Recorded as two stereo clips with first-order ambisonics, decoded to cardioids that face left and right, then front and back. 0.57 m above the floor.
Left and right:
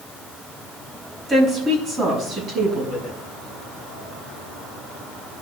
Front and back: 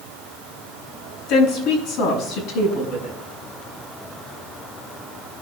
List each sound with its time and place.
1.3 s a woman speaking: 20° right, 5 m; by 3.2 s 35° right, 6 m